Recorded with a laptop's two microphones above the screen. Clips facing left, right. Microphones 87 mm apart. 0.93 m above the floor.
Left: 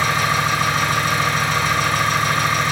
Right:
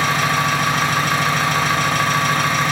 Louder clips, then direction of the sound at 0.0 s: Right 1 dB; 65° right (ahead or behind).